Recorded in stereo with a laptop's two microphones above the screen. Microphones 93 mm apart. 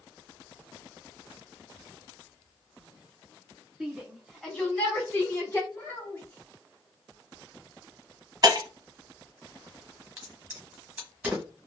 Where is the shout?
Centre (ahead or behind), 2.0 m; by 5.6 s 30° left (ahead or behind), 2 m.